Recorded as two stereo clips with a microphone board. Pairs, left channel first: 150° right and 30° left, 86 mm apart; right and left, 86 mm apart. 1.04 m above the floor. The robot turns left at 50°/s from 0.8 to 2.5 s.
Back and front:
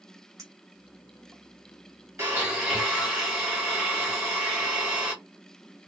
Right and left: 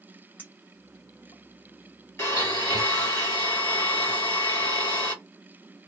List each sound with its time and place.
0.4 s a clink: 20° right, 0.8 m; by 1.4 s 50° right, 0.8 m
2.2 s a blender: 35° right, 1.3 m; by 5.2 s 50° right, 1.3 m